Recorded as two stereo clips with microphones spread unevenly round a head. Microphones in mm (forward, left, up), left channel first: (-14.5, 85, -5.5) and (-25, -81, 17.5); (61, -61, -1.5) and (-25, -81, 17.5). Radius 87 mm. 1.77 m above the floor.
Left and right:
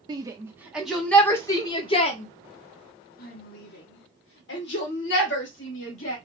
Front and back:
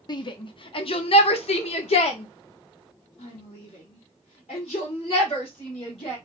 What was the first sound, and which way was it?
A shout, 25° right.